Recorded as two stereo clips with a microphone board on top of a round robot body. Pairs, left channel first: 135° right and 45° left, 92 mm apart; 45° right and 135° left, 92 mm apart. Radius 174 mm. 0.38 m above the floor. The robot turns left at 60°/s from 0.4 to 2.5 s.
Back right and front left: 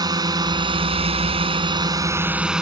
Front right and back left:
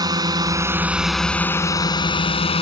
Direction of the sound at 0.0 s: 90° left.